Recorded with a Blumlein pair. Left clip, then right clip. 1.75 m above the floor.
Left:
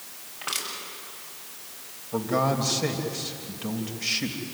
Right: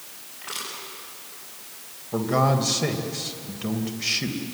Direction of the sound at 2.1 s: 65° right.